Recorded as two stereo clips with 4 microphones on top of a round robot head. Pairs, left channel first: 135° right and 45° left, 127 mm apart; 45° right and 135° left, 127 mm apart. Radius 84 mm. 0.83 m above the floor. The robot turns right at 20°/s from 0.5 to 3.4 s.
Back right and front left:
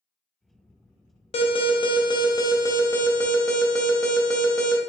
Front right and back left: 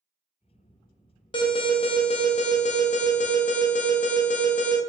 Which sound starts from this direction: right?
An alarm, at 1.3 s.